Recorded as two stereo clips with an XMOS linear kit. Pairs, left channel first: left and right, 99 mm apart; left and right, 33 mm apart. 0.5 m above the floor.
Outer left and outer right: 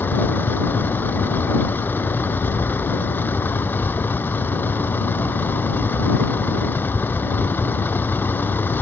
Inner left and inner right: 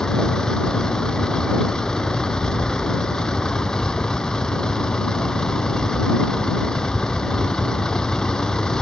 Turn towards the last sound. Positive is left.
turn(degrees=20)  # may be behind; listen again after turning